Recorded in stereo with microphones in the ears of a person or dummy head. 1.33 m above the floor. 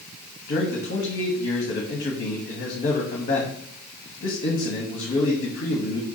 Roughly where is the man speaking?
Left.